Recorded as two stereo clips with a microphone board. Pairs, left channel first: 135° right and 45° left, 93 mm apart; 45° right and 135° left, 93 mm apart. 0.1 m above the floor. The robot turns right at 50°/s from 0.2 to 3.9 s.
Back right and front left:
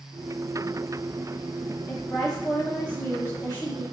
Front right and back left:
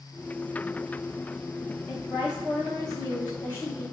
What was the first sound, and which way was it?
A woman speaking, 170° right.